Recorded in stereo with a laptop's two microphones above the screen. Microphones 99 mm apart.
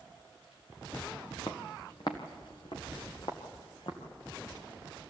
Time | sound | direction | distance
1.5 | footsteps | 50° left (ahead or behind) | 1.8 m